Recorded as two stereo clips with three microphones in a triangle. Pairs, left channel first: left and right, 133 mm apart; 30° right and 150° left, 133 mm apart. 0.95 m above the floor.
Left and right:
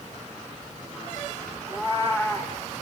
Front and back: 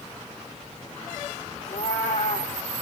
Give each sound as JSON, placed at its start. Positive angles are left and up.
{"t": 1.7, "sound": "a cat meowing", "azimuth_deg": -15, "distance_m": 3.0}